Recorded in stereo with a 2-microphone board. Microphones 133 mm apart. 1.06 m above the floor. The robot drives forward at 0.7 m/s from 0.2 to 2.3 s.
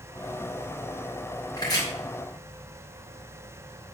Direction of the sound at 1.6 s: 30° left (ahead or behind).